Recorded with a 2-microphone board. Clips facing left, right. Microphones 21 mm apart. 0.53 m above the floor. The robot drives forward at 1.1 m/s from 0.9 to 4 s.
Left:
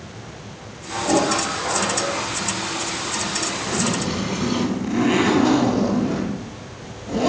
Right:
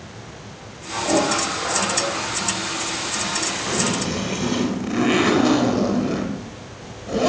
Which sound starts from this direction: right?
A zipper, at 3.7 s.